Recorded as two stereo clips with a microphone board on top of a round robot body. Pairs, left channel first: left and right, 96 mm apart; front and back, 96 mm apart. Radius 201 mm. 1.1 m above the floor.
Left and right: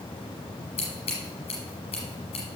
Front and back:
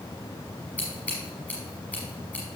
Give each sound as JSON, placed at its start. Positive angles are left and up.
{"t": 0.8, "sound": "scissors", "azimuth_deg": 75, "distance_m": 1.2}